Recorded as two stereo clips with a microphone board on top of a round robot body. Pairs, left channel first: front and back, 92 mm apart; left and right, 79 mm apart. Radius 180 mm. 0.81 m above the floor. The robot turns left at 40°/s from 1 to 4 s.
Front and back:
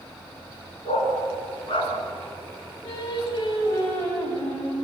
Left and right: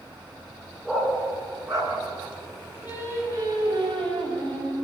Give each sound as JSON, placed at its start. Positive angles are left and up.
{"t": 0.8, "sound": "a dog barking", "azimuth_deg": -5, "distance_m": 4.0}
{"t": 2.8, "sound": "singing", "azimuth_deg": -25, "distance_m": 6.5}